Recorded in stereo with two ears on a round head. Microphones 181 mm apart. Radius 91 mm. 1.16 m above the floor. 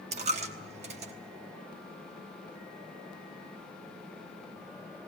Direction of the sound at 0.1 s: 35° right (ahead or behind).